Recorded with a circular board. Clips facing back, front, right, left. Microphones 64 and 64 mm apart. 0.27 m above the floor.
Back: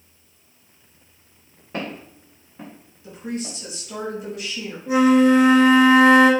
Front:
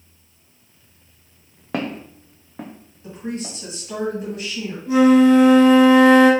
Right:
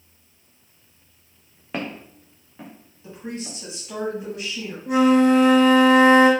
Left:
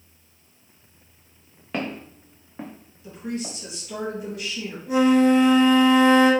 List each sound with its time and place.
1.7 s footsteps: 5° right, 1.1 m; by 3.5 s 70° left, 1.3 m
3.0 s a woman speaking: 40° right, 1.7 m
4.9 s a flute: 110° right, 1.2 m